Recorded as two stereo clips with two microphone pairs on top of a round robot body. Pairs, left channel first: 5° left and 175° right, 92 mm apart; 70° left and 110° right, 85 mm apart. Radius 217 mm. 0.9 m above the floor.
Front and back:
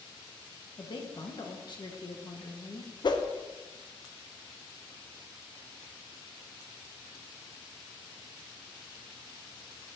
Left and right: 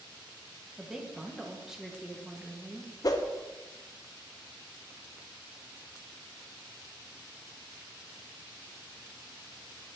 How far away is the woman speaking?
About 1.9 m.